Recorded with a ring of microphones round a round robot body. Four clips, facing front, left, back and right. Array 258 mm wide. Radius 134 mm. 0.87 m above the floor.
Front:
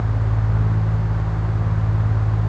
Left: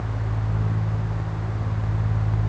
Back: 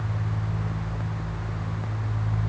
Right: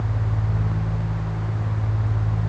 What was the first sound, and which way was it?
Only background noise.